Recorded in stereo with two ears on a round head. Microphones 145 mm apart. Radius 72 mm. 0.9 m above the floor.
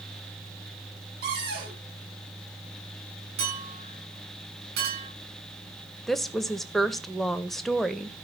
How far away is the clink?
About 7 m.